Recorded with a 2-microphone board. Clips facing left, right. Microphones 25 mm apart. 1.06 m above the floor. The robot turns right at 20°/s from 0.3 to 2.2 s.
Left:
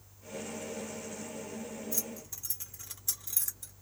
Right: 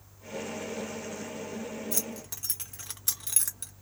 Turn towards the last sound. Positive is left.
turn(degrees=-65)  # may be behind; listen again after turning